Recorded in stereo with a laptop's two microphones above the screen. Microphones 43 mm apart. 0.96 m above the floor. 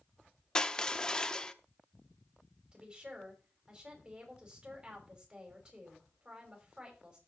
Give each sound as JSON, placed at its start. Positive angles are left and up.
{"t": 0.6, "sound": "crushing", "side_deg": 20, "distance_m": 0.8}
{"t": 2.7, "sound": "a woman speaking", "side_deg": -20, "distance_m": 5.0}